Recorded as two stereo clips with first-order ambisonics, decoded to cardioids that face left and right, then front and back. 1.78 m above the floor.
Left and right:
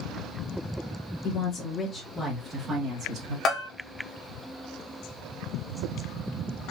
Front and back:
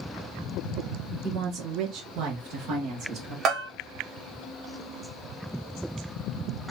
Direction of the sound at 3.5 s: 135° left.